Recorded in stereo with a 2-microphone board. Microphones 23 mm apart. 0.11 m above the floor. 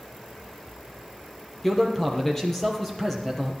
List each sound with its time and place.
1.6 s a man speaking: 15° left (ahead or behind), 2.5 m